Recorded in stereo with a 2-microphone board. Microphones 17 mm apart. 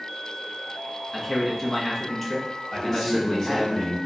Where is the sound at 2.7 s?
20° left (ahead or behind), 1.9 m.